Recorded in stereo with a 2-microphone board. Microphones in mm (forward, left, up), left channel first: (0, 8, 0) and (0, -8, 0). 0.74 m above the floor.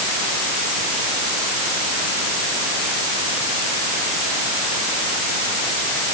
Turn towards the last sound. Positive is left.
No sound to turn to.